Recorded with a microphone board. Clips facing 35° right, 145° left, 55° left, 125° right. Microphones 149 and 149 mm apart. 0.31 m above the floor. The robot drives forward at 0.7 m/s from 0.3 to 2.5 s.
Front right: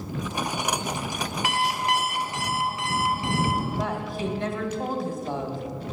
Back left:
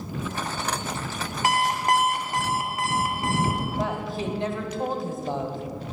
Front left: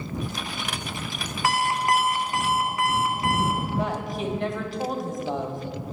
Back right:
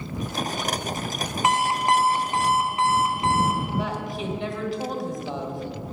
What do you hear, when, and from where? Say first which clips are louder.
1.4 s an alarm clock: back left 4 dB, back right 1 dB; 175° left, 0.6 m; by 3.6 s straight behind, 1.3 m
3.7 s a woman speaking: back left 1 dB, front left 1 dB; 145° left, 1.4 m